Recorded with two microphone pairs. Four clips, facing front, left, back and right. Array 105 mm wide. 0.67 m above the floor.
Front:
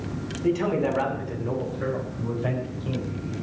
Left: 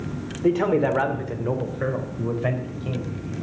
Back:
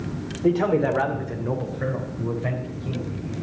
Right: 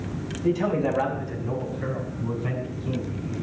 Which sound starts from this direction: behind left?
A man speaking, at 0.4 s.